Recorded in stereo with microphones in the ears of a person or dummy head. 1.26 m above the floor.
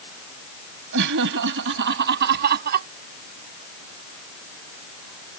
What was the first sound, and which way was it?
Laughter, 70° right (ahead or behind).